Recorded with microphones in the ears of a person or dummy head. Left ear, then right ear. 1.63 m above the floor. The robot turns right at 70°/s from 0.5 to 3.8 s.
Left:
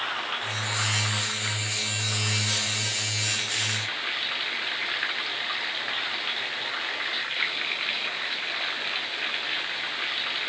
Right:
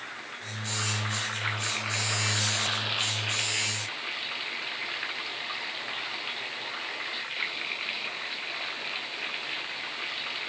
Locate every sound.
0.0 s running water: 140° left; by 10.5 s 10° left